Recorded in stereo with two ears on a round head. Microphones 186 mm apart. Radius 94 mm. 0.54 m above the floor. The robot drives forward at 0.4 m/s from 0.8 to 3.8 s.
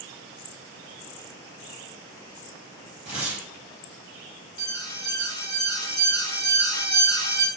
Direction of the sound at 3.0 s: 5° right (ahead or behind).